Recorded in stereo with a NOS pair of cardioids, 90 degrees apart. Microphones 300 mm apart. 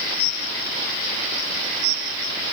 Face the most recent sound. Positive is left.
No sound to turn to.